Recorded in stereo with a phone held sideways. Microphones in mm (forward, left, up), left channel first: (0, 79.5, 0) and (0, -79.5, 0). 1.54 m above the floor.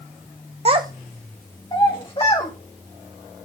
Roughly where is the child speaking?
Right.